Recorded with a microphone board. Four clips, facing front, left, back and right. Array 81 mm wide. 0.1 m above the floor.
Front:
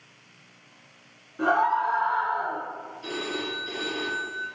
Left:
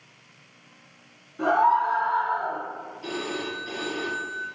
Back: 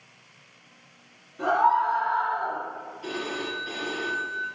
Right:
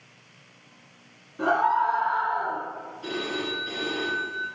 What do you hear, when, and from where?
1.4 s a scream: straight ahead, 1.2 m; by 2.6 s 10° right, 1.8 m
3.0 s a phone ringing: 135° right, 1.1 m